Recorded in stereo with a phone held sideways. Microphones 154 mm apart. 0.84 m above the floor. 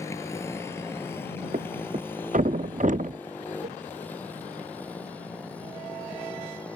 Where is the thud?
50° right (ahead or behind).